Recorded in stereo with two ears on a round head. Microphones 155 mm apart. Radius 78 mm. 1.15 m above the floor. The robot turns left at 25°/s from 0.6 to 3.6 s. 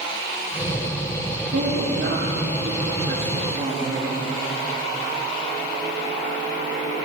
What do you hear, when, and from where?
1.5 s a woman speaking: 90° right, 2.5 m; by 4.2 s 140° right, 2.5 m